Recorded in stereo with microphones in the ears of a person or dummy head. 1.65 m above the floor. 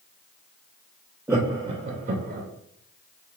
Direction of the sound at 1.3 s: 10° right (ahead or behind).